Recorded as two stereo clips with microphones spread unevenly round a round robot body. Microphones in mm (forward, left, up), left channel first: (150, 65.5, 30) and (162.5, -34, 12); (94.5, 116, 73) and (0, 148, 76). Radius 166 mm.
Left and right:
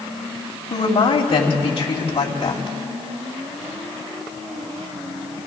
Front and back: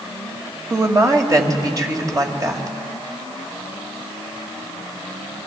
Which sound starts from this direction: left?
A woman speaking, at 0.7 s.